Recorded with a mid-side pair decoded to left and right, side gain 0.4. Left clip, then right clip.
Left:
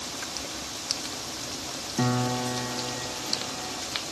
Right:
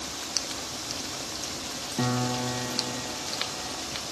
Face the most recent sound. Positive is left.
turn(degrees=20)